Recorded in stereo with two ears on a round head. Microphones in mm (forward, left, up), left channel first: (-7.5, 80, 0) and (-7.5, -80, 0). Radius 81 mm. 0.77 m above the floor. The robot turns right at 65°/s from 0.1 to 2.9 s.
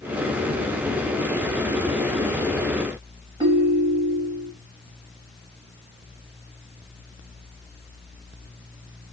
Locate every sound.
3.4 s a ringtone: 25° right (ahead or behind), 0.7 m